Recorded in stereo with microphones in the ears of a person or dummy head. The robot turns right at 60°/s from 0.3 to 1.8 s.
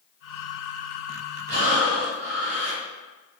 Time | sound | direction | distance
1.5 | breathing | 55° right (ahead or behind) | 1.2 m